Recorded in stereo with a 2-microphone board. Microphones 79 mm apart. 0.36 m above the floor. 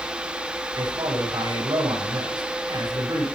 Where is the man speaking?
65° right (ahead or behind), 9 m.